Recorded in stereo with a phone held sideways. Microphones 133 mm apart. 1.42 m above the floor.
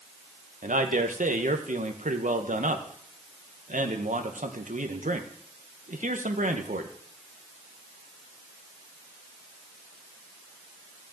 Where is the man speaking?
80° right, 1.8 m.